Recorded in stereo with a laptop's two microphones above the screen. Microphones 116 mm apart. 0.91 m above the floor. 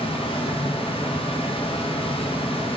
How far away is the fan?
About 1.0 m.